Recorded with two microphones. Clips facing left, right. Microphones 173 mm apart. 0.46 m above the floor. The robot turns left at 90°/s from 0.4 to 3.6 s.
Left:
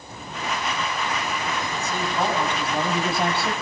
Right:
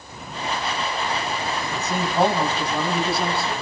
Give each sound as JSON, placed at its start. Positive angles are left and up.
{"t": 1.7, "sound": "a man speaking", "azimuth_deg": -100, "distance_m": 4.0}